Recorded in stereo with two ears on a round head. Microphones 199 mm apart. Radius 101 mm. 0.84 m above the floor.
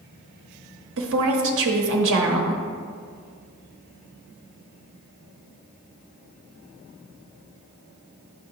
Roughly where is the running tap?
No running tap in this recording.